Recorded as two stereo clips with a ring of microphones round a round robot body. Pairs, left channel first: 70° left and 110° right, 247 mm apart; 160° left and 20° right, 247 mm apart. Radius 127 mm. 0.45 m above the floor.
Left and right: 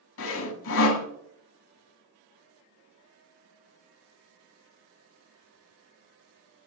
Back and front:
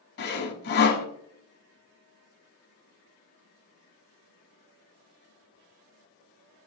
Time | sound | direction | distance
0.2 | sawing | 105° left | 0.9 m